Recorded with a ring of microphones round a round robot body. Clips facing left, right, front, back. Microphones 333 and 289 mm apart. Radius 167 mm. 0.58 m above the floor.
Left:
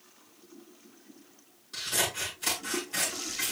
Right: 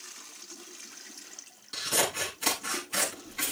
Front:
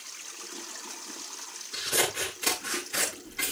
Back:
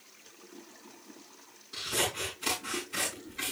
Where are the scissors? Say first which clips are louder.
Right 4 dB, front 4 dB; 95° right, 7.5 m.